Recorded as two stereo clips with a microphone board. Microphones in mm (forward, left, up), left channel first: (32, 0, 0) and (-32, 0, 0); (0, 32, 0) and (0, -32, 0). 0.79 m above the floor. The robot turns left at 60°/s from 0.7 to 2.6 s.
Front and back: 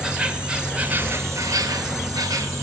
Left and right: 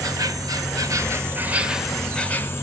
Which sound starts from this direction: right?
An insect, at 0.0 s.